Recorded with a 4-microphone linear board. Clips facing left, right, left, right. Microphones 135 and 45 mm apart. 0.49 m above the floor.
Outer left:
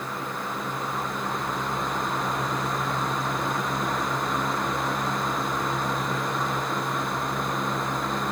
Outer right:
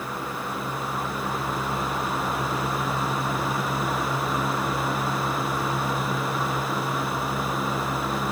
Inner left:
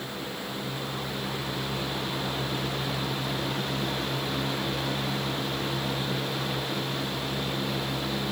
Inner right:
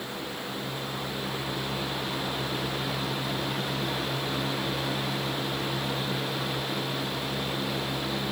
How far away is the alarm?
No alarm in this recording.